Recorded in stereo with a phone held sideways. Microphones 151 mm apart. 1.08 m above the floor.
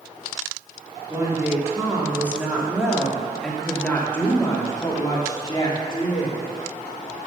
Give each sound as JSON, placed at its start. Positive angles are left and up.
{"t": 1.1, "sound": "a woman speaking", "side_deg": -25, "distance_m": 2.5}